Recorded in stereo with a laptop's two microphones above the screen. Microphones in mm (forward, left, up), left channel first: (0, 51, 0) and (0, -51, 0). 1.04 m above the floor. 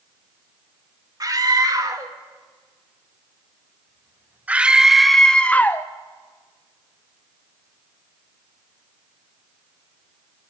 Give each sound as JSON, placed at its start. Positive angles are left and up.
{"t": 1.2, "sound": "a scream", "side_deg": -35, "distance_m": 2.5}